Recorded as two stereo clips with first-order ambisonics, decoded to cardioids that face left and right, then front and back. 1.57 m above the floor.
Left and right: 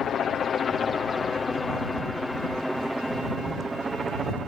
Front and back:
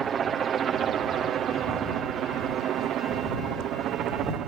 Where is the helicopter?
125° left; by 4.5 s 155° right.